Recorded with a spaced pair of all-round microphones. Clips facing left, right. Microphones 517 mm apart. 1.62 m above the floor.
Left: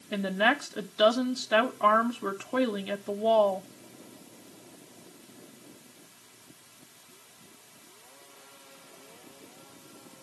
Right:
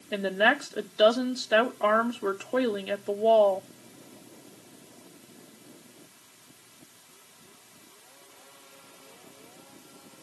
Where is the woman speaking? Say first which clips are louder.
Right 2 dB; 25° left (ahead or behind), 1.3 m.